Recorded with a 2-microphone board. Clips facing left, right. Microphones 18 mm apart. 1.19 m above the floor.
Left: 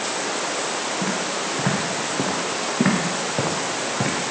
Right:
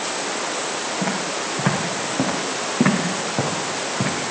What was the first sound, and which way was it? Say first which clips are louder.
Footsteps: even; 20° right (ahead or behind).